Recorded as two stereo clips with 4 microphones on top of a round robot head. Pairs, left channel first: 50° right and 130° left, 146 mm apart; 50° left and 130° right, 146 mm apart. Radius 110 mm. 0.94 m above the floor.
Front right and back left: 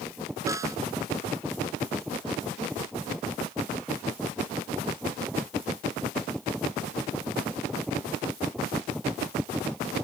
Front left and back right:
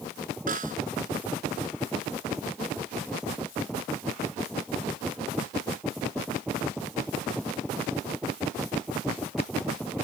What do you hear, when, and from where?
0.5 s a snare drum: 160° right